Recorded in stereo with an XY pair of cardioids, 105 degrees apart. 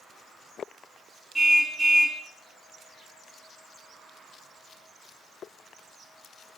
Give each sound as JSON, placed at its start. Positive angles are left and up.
{"t": 1.4, "sound": "a car horn", "azimuth_deg": -20, "distance_m": 4.5}